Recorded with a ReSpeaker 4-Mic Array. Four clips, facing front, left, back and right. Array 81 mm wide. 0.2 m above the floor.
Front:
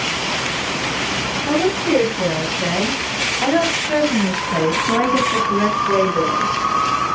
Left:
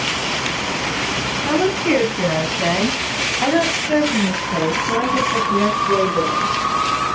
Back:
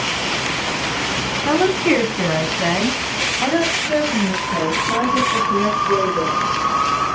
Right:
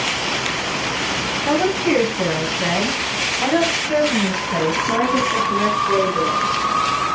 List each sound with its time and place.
1.4 s a woman speaking: 165° left, 1.7 m; by 6.5 s 5° right, 2.5 m